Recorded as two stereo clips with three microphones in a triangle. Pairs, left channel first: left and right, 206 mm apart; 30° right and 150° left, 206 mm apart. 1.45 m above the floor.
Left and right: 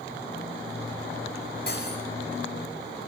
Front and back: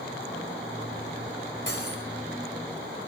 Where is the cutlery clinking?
125° left, 5 m.